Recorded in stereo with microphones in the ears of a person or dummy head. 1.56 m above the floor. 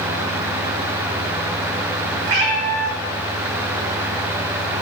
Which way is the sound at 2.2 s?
35° right (ahead or behind).